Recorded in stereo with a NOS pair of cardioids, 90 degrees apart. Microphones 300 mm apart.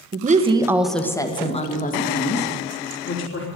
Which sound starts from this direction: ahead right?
A woman speaking, at 0.1 s.